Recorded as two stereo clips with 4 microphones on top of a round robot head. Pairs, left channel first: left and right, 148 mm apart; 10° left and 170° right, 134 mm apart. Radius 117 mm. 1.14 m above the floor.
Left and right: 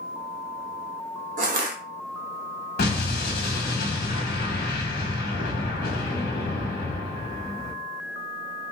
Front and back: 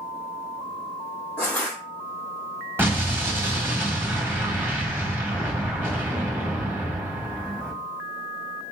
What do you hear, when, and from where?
1.4 s crushing: 70° right, 0.7 m
2.8 s an explosion: 115° left, 1.2 m